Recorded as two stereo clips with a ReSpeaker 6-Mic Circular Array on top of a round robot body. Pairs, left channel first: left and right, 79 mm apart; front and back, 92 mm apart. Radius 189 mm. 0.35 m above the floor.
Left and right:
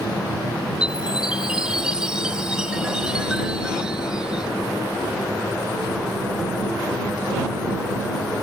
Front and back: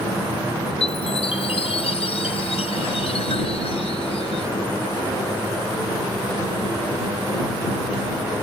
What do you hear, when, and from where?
0.8 s a chime: 10° right